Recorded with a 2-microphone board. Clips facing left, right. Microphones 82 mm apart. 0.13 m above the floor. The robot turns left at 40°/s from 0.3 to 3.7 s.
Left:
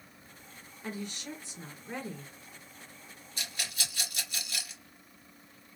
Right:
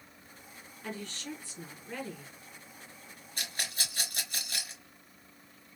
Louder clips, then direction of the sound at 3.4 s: Right 1 dB; 45° right (ahead or behind).